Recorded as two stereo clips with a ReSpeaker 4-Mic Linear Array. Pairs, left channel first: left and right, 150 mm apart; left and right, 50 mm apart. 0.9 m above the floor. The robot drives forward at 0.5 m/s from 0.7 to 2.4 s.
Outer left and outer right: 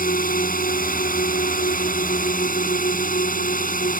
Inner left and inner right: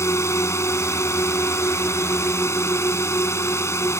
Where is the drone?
70° left (ahead or behind).